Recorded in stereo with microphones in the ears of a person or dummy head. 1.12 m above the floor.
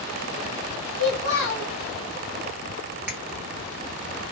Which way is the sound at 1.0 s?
80° left.